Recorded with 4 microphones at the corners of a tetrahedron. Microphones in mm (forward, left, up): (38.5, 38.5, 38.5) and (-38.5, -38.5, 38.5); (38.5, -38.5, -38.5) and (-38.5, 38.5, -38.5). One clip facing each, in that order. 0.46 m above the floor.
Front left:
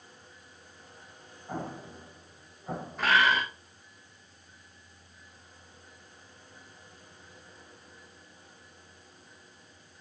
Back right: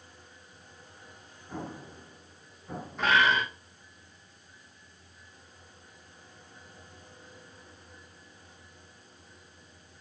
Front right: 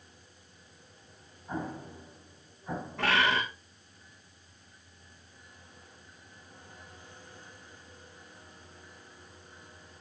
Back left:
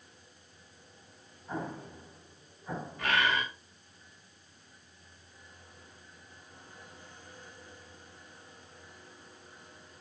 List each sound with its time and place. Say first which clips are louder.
1.5 s an explosion: front left 2 dB, front right 1 dB; 40° left, 3 m
3.0 s a bird: even, front right 2 dB; 45° right, 3.5 m